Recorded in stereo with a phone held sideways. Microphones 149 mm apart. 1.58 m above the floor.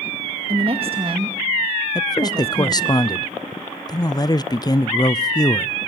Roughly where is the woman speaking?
Right.